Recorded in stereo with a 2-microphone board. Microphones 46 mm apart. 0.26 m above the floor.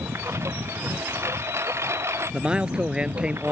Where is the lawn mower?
80° right.